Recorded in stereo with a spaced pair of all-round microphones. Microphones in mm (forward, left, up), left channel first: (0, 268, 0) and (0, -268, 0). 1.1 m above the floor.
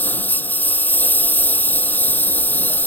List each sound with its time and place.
0.0 s a lawn mower: 5° left (ahead or behind)